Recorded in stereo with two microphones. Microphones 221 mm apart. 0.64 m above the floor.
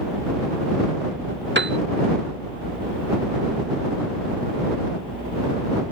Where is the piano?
55° right (ahead or behind).